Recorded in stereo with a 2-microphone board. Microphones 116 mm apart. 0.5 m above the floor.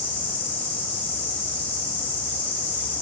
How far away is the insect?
About 7.5 m.